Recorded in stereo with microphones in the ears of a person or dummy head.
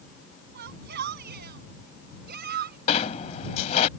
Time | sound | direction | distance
0.6 | a shout | 60° right (ahead or behind) | ?
2.9 | a sliding door | 40° left (ahead or behind) | ?